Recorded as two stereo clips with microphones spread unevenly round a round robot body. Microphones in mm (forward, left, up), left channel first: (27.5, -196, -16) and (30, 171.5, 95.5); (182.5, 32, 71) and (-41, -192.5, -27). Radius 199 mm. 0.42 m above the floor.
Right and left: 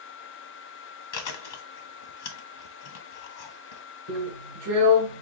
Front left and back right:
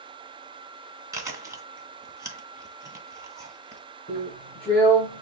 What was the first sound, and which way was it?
Chewing, 60° right.